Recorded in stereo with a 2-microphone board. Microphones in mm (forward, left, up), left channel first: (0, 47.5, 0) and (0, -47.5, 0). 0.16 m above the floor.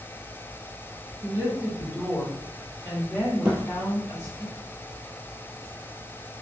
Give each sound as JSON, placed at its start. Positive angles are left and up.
{"t": 1.2, "sound": "a woman speaking", "side_deg": -35, "distance_m": 1.9}
{"t": 3.5, "sound": "a thud", "side_deg": -25, "distance_m": 1.1}